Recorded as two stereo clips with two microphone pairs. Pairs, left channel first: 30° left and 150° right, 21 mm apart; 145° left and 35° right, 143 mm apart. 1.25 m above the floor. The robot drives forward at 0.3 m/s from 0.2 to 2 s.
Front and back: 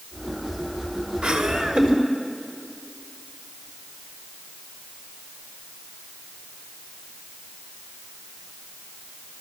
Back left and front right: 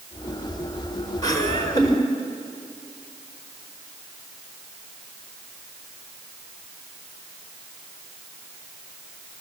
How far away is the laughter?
About 4 m.